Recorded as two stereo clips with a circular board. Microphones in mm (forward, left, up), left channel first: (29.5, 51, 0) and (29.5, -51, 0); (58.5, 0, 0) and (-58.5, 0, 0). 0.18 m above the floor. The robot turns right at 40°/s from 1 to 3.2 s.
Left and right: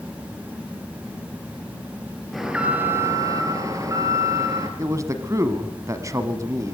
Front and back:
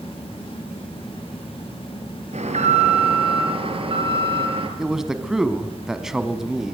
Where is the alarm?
Straight behind, 2.5 m; by 4.7 s 145° right, 2.5 m.